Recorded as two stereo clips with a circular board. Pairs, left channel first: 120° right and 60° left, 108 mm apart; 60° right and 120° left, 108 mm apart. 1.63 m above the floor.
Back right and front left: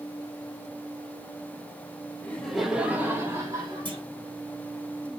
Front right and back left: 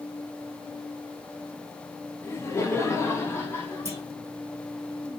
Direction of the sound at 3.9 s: 70° left.